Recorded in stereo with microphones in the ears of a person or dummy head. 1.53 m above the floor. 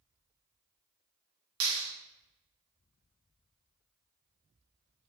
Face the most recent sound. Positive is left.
turn(degrees=-85)